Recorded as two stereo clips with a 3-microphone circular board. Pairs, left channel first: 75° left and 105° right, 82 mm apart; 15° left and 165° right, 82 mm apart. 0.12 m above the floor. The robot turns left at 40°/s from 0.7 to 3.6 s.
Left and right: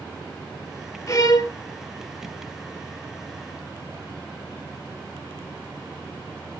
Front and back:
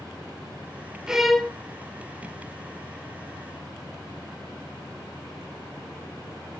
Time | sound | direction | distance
1.1 | a violin | 115° left | 0.6 m